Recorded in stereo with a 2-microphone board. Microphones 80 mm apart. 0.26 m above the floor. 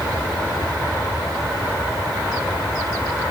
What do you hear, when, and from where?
Only background noise.